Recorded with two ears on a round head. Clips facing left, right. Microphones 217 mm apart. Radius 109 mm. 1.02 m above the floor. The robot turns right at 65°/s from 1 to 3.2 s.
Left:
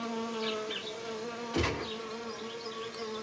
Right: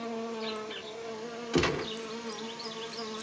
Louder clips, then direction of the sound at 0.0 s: Even; 155° left.